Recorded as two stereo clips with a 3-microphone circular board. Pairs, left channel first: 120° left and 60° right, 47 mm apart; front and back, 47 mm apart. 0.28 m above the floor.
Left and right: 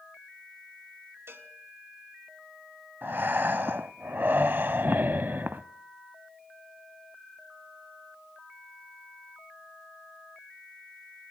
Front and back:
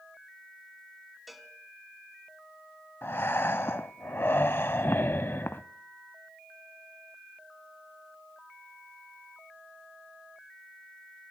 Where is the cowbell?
90° right, 1.2 m.